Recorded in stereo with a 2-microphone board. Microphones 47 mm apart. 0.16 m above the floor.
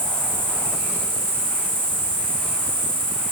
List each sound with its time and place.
0.0 s an insect: 65° right (ahead or behind), 3 m